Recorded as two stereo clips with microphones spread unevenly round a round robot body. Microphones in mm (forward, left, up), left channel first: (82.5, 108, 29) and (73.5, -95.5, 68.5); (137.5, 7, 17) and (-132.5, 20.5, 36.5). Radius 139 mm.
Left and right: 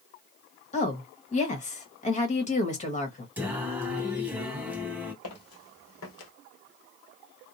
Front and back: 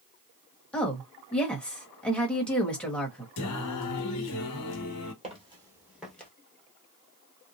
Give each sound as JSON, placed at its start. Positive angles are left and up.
{"t": 0.7, "sound": "a woman speaking", "azimuth_deg": 75, "distance_m": 1.4}
{"t": 3.4, "sound": "singing", "azimuth_deg": -25, "distance_m": 0.9}
{"t": 5.2, "sound": "footsteps", "azimuth_deg": 115, "distance_m": 1.5}